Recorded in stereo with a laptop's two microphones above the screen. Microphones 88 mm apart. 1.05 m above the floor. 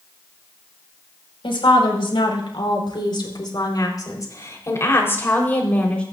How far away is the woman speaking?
About 4 m.